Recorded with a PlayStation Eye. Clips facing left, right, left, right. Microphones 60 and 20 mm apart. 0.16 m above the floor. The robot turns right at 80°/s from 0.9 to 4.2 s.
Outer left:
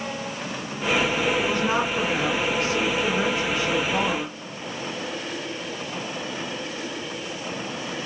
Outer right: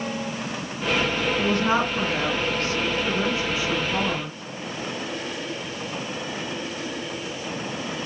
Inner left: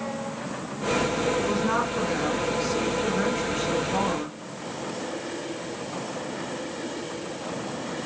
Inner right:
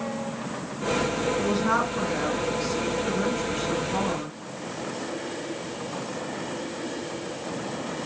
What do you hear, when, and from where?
1.4 s a woman speaking: 65° right, 2.5 m; by 4.3 s 160° left, 2.5 m